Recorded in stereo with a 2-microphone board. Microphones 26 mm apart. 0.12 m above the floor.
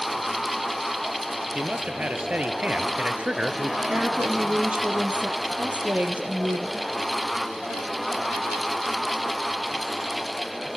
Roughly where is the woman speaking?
Right.